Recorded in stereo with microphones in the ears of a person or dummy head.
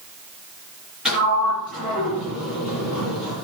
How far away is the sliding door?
About 6.5 m.